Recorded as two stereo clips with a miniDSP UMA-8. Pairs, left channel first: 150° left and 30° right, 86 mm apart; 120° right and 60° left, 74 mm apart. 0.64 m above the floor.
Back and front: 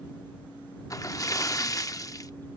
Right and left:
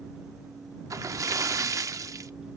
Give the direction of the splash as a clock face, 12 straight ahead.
9 o'clock.